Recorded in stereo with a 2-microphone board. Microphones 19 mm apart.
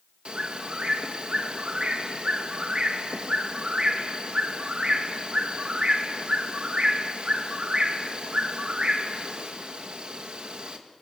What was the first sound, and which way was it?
A bird, 60° right (ahead or behind).